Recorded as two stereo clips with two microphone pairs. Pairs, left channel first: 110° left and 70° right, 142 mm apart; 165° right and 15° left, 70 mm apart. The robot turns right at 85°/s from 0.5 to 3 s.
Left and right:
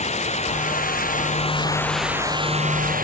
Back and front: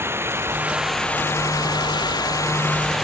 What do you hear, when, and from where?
0.0 s running water: 70° left; by 3.0 s 75° right